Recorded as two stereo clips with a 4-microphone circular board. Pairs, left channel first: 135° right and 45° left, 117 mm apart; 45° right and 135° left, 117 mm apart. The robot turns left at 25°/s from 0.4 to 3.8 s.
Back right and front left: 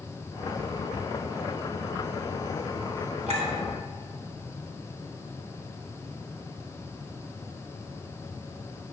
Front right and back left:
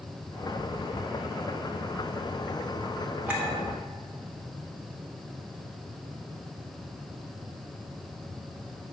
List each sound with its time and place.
3.3 s a clink: 60° left, 2.5 m; by 3.5 s 55° left, 2.5 m